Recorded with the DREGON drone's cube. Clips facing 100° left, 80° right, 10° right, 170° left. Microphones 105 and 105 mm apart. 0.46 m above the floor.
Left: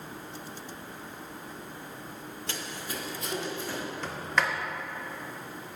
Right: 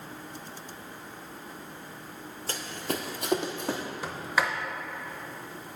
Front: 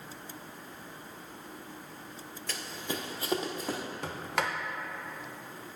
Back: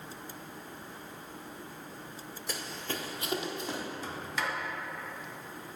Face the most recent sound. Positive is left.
turn(degrees=0)